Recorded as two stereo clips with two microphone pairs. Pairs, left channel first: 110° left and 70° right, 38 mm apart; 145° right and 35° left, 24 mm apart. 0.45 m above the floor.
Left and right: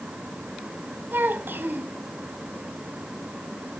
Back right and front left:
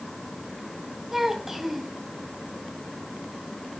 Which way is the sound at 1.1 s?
45° right.